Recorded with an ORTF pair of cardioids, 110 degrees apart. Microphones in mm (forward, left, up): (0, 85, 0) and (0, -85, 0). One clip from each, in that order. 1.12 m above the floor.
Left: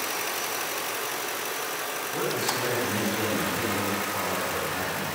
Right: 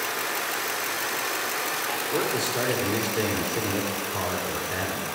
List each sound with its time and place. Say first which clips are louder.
2.1 s a man speaking: even; 55° right, 4.5 m